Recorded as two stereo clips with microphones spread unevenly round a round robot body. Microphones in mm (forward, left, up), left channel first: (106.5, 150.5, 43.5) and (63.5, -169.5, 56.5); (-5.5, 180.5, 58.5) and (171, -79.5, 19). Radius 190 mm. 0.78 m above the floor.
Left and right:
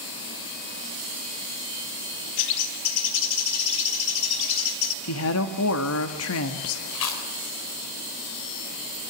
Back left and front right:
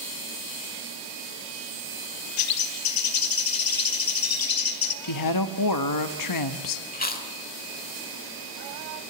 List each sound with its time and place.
2.4 s a bird: 115° left, 1.1 m
5.0 s a woman speaking: 120° left, 1.6 m
6.9 s chewing: 60° left, 3 m